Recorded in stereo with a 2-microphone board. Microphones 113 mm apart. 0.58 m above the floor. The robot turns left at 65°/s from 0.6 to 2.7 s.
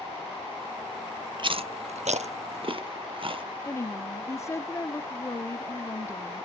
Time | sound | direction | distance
1.4 | chewing | 45° right (ahead or behind) | 0.6 m
3.6 | a woman speaking | 25° left (ahead or behind) | 0.7 m